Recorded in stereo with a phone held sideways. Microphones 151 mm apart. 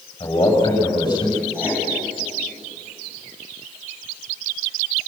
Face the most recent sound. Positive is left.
turn(degrees=-15)  # may be behind; listen again after turning